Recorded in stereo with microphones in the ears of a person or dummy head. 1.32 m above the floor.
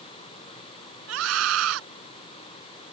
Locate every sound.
1.1 s a scream: 85° right